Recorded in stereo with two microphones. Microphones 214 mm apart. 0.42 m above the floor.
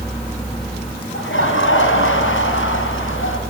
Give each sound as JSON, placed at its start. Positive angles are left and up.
{"t": 1.1, "sound": "laughter", "side_deg": 70, "distance_m": 3.0}